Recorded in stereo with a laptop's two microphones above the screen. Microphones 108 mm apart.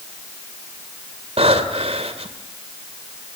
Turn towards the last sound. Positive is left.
turn(degrees=-70)  # may be behind; listen again after turning